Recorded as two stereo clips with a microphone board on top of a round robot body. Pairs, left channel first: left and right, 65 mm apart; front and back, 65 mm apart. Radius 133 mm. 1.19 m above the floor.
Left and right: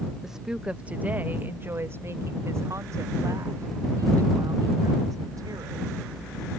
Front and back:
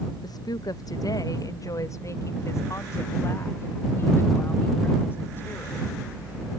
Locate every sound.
0.2 s a woman speaking: 5° right; by 5.9 s 60° right